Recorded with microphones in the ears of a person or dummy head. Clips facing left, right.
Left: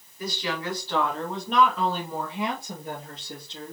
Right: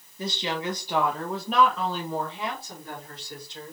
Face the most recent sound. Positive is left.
turn(degrees=30)  # may be behind; listen again after turning